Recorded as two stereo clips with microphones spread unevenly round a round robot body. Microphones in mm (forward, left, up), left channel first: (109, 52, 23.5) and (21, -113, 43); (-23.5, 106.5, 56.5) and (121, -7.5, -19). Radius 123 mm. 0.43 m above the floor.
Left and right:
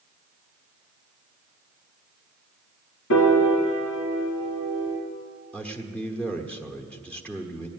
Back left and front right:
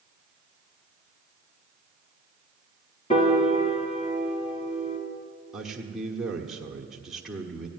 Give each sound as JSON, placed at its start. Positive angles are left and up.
{"t": 3.1, "sound": "a piano", "azimuth_deg": 90, "distance_m": 2.5}
{"t": 5.5, "sound": "a man speaking", "azimuth_deg": -5, "distance_m": 1.2}